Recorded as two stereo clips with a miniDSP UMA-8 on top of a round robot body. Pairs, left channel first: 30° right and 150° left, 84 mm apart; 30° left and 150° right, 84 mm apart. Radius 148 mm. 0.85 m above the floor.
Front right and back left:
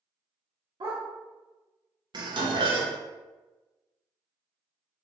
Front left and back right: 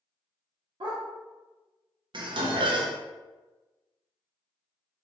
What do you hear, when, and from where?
0.8 s a dog barking: 175° right, 0.7 m
2.1 s dishes clattering: 175° right, 0.7 m